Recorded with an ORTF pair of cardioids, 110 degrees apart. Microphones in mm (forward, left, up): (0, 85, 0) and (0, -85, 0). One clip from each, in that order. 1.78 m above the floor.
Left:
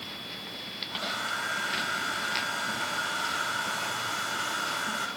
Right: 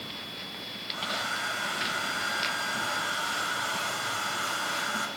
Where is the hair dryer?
10° right, 5 m.